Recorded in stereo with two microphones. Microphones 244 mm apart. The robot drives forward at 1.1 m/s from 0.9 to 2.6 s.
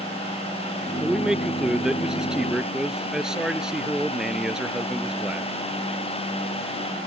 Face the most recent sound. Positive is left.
turn(degrees=0)  # may be behind; listen again after turning